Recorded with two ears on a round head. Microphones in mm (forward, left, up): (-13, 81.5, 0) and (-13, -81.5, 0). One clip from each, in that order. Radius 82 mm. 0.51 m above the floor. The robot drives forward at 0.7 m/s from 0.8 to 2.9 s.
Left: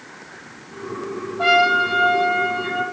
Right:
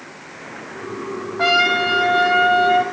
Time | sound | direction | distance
1.4 | a trumpet | 50° right (ahead or behind) | 4.5 m